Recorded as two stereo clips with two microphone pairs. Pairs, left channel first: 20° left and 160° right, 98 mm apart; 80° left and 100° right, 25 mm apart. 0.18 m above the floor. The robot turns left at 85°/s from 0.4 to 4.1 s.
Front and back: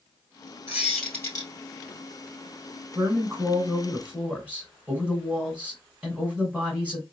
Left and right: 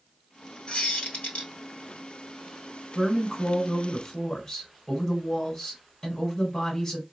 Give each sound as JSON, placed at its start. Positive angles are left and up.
{"t": 0.7, "sound": "a squeak", "azimuth_deg": 135, "distance_m": 2.0}
{"t": 3.0, "sound": "a woman speaking", "azimuth_deg": -120, "distance_m": 1.5}